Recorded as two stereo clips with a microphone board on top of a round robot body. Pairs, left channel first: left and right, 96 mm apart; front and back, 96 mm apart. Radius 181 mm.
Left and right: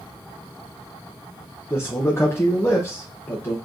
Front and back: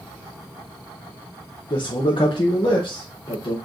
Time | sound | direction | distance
1.7 | a man speaking | 30° left | 1.0 m